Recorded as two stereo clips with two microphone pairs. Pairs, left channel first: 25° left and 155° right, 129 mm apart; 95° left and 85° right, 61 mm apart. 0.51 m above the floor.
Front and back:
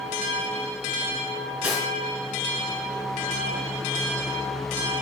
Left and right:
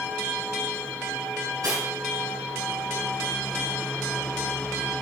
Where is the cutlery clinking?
75° right, 3.5 m.